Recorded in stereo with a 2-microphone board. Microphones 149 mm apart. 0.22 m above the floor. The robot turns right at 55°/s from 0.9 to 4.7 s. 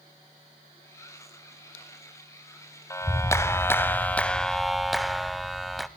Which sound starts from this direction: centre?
A clap, at 2.9 s.